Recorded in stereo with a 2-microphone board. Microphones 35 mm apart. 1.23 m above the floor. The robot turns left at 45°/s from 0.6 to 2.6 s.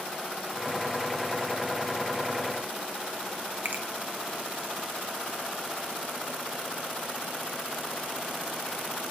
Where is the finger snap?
60° right (ahead or behind), 1.5 m.